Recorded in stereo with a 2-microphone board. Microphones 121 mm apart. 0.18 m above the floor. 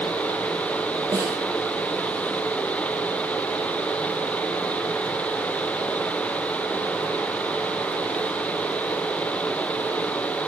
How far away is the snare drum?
About 3 m.